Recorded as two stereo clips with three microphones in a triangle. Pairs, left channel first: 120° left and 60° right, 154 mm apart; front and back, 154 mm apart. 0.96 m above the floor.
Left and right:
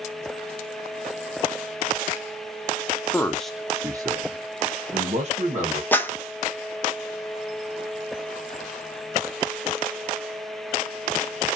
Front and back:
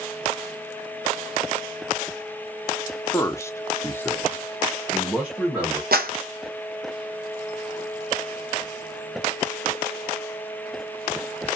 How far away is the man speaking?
About 0.6 m.